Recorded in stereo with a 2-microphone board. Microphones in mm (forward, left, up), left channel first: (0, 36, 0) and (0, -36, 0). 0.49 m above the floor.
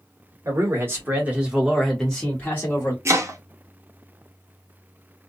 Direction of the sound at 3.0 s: 40° right (ahead or behind).